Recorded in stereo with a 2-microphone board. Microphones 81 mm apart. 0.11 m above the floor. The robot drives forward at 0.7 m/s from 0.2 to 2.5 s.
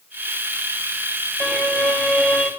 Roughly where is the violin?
Right.